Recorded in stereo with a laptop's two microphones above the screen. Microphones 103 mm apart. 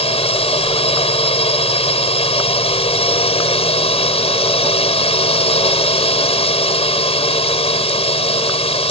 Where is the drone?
75° left (ahead or behind).